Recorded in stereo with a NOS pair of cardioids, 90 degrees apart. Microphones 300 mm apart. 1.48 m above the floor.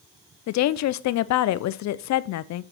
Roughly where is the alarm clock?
No alarm clock in this recording.